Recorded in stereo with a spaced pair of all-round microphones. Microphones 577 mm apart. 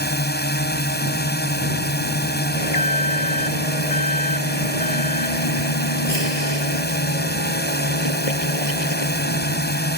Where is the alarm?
75° left (ahead or behind).